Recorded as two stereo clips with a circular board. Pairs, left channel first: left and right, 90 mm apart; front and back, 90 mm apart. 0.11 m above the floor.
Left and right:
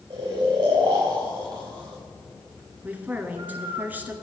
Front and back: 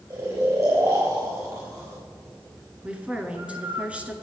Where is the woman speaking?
125° right, 1.2 m.